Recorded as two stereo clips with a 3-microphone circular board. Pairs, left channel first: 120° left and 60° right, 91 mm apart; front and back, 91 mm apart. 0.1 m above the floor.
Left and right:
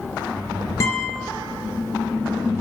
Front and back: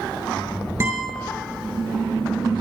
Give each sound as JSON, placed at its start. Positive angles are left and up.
{"t": 0.8, "sound": "a guitar", "azimuth_deg": 145, "distance_m": 1.5}